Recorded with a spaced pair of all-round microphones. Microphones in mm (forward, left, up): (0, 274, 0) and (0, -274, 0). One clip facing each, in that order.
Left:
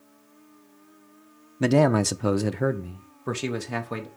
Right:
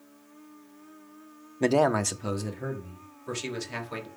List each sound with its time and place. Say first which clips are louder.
1.6 s a man speaking: left 3 dB; 35° left (ahead or behind), 0.6 m; by 4.1 s 65° left (ahead or behind), 1.6 m